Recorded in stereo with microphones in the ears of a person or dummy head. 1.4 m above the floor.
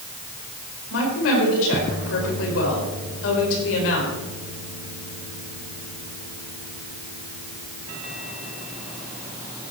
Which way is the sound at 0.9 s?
75° left (ahead or behind).